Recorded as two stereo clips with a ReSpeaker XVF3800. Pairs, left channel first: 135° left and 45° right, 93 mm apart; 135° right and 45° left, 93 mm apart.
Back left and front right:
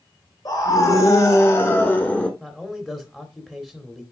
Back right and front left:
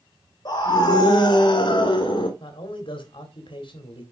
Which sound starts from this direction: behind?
A scream, at 0.5 s.